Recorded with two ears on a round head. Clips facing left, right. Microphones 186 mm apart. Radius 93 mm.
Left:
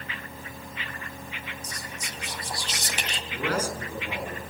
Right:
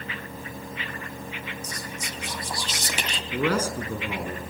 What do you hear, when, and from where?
1.6 s whispering: 70° right (ahead or behind), 2.5 m
3.3 s a man speaking: 75° right (ahead or behind), 5 m